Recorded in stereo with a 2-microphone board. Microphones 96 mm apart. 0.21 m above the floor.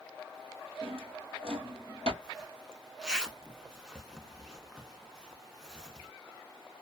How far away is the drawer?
About 1.3 m.